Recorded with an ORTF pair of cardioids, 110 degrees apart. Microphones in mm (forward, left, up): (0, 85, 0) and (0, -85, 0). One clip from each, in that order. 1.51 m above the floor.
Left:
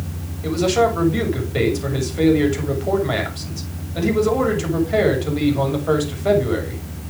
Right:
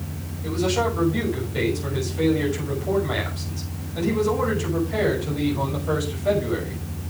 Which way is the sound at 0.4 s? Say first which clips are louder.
Left 6 dB; 40° left.